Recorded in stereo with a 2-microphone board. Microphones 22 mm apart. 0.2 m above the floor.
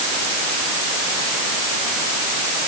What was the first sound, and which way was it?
Only background noise.